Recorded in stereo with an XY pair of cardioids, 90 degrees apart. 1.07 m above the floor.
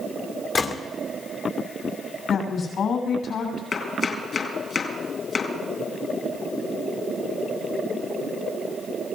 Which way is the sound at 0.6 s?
60° left.